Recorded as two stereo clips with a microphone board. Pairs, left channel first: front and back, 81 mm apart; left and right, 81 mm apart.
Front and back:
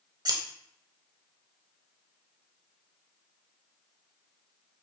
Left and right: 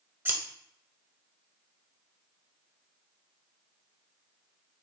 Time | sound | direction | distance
0.2 | scissors | 155° right | 0.8 m